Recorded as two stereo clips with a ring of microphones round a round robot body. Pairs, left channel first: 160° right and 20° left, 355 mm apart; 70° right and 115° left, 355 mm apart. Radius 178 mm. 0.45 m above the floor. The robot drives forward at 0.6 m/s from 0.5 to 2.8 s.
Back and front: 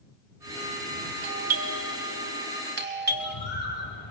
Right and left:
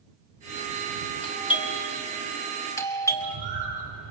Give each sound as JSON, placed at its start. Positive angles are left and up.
{"t": 1.2, "sound": "a doorbell", "azimuth_deg": 0, "distance_m": 2.5}
{"t": 3.1, "sound": "a bird", "azimuth_deg": -120, "distance_m": 7.5}